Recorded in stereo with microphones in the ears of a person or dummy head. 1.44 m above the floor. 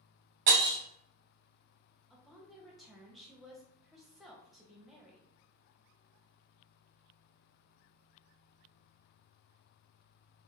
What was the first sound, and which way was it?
Breaking glass, 45° right (ahead or behind).